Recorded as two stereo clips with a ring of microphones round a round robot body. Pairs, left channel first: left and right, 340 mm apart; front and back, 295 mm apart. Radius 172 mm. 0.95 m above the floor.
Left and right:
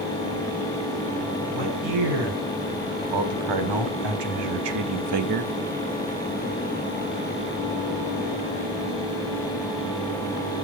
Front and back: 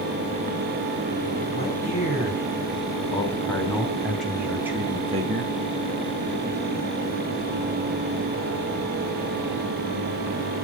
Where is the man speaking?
75° right, 6 m; by 5.5 s 120° right, 1.6 m.